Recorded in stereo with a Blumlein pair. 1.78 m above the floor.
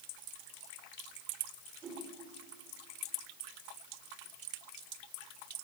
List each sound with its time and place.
1.8 s a whoosh: 25° right, 5.5 m